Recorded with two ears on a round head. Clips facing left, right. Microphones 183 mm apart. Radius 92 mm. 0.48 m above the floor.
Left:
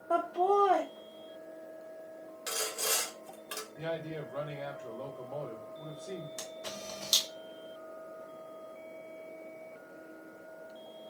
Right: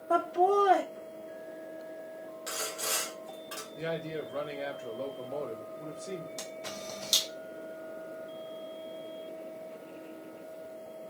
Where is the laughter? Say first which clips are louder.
Right 2 dB; 15° right (ahead or behind), 0.8 m.